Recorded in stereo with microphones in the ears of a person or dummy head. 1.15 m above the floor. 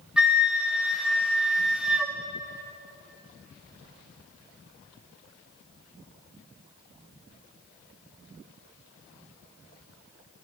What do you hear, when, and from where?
0.2 s a flute: 10° right (ahead or behind), 1.3 m